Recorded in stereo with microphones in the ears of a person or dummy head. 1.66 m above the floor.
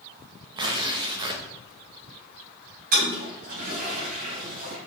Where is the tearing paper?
25° right (ahead or behind), 1.2 m.